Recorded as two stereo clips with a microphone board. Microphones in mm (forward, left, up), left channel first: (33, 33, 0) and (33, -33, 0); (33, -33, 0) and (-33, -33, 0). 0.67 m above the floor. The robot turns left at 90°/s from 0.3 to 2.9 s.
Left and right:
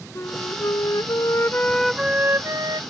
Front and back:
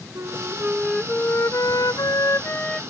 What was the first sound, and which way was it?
A flute, 140° left.